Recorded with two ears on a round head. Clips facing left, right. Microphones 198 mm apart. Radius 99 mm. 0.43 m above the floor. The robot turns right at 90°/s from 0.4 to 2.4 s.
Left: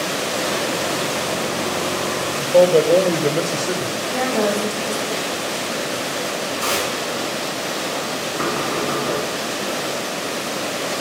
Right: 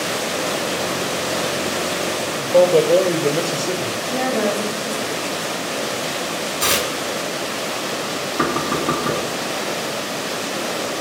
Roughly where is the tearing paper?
Right.